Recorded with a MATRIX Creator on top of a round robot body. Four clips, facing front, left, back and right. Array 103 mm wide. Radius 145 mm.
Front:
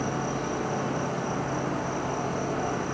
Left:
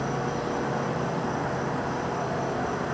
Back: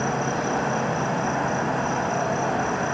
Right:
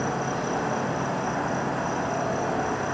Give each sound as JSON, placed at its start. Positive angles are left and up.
{"t": 0.0, "sound": "an insect", "azimuth_deg": -165, "distance_m": 4.0}